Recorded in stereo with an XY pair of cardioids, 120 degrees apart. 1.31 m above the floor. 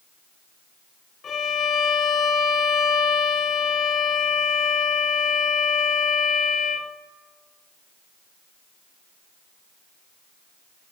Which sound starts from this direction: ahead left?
A violin, at 1.2 s.